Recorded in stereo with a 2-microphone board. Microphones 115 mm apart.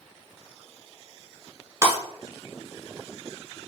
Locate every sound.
1.8 s breaking glass: 20° right (ahead or behind), 1.4 m